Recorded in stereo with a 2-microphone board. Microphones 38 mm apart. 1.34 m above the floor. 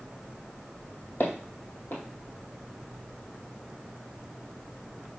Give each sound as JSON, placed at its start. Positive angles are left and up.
{"t": 1.2, "sound": "footsteps", "side_deg": 55, "distance_m": 2.0}